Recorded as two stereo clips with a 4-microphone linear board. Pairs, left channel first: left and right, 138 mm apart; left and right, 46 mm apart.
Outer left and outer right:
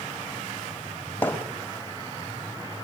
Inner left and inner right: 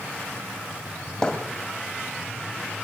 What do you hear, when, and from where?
1.2 s hammering: 15° left (ahead or behind), 2.5 m